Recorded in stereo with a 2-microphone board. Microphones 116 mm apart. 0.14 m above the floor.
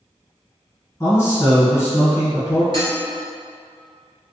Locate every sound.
1.0 s a man speaking: 25° left (ahead or behind), 1.7 m
2.7 s dishes clattering: 45° right (ahead or behind), 1.6 m